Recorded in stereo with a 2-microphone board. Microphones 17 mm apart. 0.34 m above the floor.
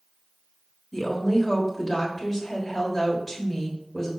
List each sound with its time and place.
0.9 s a woman speaking: 15° left (ahead or behind), 1.3 m